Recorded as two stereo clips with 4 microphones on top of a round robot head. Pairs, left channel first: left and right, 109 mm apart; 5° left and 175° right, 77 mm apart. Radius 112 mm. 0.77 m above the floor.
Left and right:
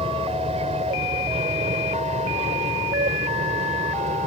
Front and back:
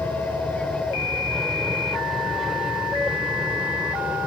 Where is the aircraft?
65° right; by 4.3 s 100° right.